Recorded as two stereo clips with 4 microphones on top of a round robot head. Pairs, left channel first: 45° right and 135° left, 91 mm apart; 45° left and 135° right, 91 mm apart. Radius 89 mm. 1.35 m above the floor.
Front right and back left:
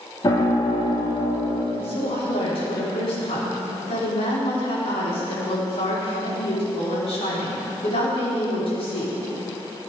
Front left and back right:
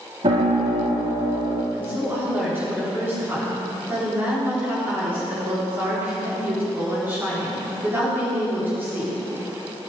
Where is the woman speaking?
65° right, 4.5 m.